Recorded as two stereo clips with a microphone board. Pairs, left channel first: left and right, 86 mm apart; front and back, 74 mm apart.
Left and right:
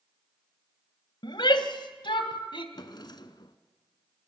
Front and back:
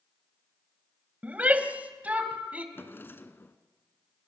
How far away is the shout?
About 2 m.